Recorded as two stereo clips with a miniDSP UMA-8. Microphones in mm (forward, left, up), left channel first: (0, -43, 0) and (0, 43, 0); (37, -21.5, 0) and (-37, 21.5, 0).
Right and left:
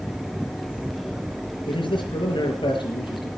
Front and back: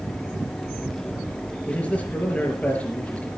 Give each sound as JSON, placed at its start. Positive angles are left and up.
{"t": 1.6, "sound": "a man speaking", "azimuth_deg": -105, "distance_m": 5.0}